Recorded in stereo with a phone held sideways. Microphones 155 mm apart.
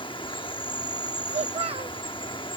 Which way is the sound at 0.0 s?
30° left (ahead or behind).